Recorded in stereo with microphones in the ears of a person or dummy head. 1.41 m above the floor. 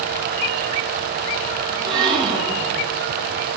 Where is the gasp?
35° right (ahead or behind), 2.5 m.